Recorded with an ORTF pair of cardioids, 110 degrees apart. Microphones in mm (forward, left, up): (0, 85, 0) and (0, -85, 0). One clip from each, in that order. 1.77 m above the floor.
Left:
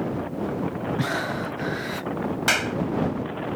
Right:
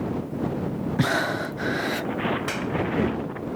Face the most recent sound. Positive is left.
turn(degrees=65)